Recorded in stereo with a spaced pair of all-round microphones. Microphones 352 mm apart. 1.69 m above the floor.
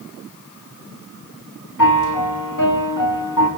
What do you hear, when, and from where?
1.8 s a piano: 65° left (ahead or behind), 1.9 m